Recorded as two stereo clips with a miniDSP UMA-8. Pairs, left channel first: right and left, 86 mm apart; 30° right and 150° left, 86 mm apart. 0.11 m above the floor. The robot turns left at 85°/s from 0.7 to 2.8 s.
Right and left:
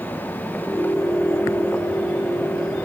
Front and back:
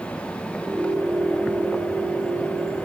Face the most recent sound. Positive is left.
No sound to turn to.